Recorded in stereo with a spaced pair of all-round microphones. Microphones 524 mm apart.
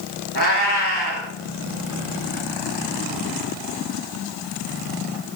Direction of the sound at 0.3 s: 50° left (ahead or behind).